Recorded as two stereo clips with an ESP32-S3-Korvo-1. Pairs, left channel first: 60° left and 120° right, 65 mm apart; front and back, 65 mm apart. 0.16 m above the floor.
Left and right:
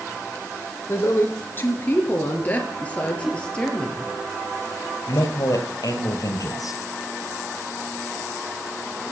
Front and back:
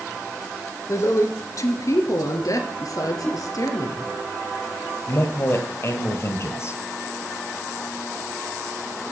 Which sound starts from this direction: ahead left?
A man speaking, at 5.1 s.